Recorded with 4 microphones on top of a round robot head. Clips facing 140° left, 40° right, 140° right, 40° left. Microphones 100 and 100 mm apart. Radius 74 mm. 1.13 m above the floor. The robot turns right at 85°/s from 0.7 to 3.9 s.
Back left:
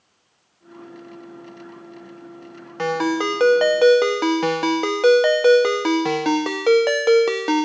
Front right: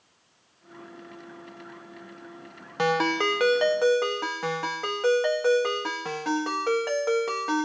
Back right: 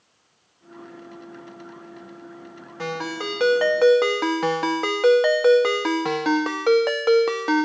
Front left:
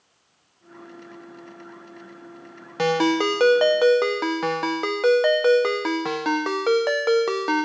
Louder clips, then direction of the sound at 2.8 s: Back left 3 dB, front left 9 dB; 35° left.